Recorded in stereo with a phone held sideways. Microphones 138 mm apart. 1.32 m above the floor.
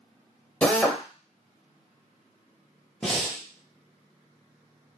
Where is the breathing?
5° left (ahead or behind), 0.8 m.